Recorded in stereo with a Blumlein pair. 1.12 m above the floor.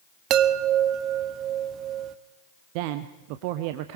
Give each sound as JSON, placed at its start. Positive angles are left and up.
{"t": 0.3, "sound": "a chime", "azimuth_deg": -35, "distance_m": 0.9}
{"t": 2.8, "sound": "a woman speaking", "azimuth_deg": -45, "distance_m": 0.9}